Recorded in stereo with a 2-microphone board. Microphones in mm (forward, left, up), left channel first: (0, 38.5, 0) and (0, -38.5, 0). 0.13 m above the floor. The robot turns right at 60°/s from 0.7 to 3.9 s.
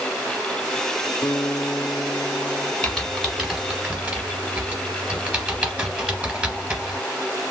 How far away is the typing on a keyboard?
About 1.3 m.